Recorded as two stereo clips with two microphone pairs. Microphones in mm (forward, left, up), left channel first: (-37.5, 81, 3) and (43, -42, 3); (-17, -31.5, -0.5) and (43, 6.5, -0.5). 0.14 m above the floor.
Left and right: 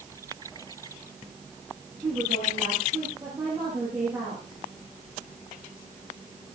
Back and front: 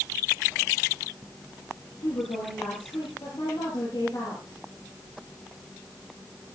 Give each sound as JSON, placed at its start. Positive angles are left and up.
{"t": 2.0, "sound": "a woman speaking", "azimuth_deg": -125, "distance_m": 10.0}